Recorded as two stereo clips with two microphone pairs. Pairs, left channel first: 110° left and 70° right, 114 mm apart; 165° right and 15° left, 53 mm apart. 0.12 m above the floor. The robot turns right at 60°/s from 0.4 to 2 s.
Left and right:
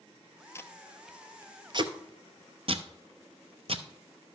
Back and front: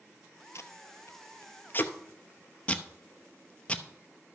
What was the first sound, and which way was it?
Tape being pulled, 170° left.